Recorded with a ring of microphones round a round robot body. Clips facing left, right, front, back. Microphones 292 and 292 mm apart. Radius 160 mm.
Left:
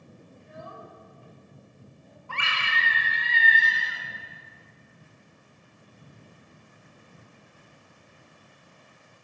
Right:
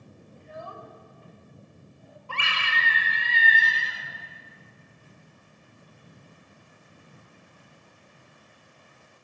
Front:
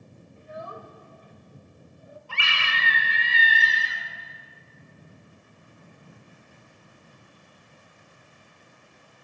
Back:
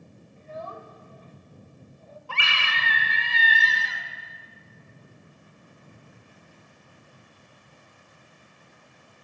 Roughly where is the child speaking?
Right.